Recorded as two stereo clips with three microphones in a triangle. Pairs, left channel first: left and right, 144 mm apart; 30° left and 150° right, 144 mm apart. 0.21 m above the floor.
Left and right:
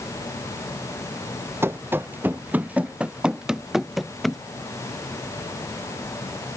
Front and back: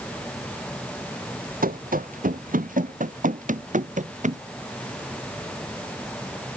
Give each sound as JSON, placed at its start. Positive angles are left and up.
{"t": 1.6, "sound": "running footsteps", "azimuth_deg": -165}